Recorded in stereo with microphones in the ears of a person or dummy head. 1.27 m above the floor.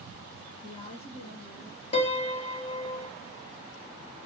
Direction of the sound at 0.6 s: 25° left (ahead or behind).